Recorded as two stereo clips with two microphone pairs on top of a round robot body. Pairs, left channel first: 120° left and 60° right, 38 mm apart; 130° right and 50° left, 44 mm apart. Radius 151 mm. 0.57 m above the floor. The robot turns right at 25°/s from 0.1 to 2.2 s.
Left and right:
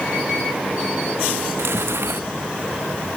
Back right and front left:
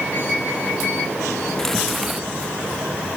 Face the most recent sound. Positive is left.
turn(degrees=-35)